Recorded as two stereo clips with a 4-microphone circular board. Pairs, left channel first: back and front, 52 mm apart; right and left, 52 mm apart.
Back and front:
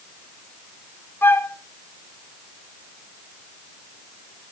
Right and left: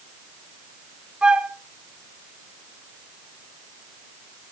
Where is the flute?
160° left, 0.8 m.